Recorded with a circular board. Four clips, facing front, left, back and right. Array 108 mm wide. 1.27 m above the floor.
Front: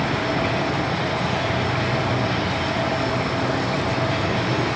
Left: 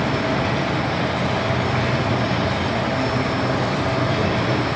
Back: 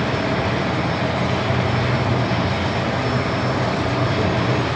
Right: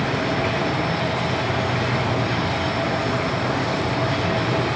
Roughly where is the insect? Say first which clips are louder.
Left 1 dB, back 1 dB; behind left.